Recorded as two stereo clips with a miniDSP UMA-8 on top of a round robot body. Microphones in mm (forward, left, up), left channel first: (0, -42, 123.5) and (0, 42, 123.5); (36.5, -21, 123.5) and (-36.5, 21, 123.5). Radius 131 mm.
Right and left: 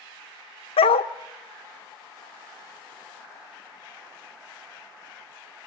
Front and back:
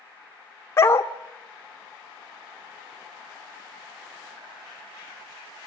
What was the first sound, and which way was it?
A dog barking, 90° right.